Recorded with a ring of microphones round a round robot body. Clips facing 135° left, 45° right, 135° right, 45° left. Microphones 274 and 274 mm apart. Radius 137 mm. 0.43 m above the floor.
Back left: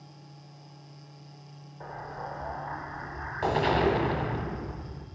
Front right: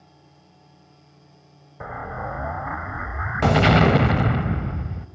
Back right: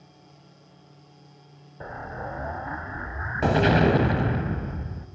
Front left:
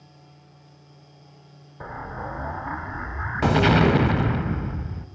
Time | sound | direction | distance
1.8 | an explosion | 30° right | 0.8 m